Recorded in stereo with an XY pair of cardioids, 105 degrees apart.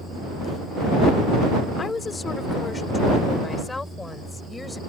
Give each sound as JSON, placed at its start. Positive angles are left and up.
{"t": 1.8, "sound": "a woman speaking", "azimuth_deg": 35}